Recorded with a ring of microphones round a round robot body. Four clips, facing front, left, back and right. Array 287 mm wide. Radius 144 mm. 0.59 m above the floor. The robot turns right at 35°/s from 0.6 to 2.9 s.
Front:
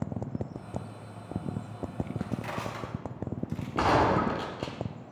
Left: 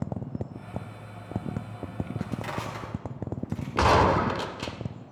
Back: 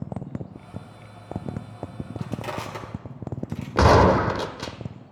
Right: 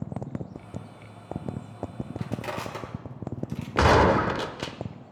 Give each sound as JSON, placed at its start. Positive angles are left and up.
{"t": 2.2, "sound": "crushing", "azimuth_deg": -150, "distance_m": 2.5}
{"t": 3.8, "sound": "a gunshot", "azimuth_deg": -165, "distance_m": 0.7}